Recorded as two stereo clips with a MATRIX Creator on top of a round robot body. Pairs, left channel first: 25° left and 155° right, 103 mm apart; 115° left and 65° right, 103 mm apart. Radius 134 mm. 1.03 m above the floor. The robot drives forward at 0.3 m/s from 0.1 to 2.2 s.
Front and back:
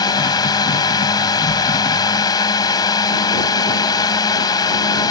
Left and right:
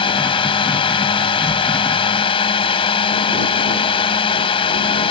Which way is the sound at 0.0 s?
75° left.